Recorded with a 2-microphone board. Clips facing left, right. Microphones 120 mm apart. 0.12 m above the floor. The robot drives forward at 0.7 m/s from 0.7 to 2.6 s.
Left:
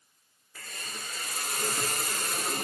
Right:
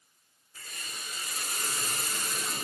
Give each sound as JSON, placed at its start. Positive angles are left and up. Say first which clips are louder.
{"t": 0.6, "sound": "a hiss", "louder": "left 3 dB", "side_deg": 85, "distance_m": 3.5}